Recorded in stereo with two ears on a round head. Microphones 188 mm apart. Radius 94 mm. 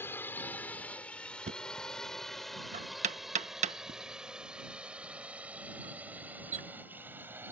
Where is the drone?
10° left (ahead or behind); by 7.5 s 10° right (ahead or behind).